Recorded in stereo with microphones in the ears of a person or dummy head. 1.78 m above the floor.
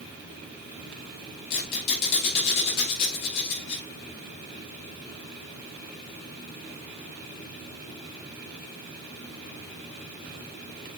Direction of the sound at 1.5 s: 60° left (ahead or behind).